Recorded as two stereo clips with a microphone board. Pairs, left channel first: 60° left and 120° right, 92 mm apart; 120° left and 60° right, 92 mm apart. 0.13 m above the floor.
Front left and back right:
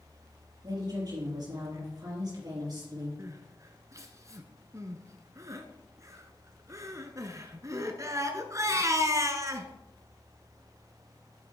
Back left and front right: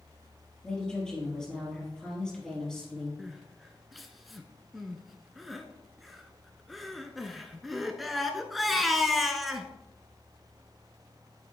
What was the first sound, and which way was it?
A woman speaking, 160° right.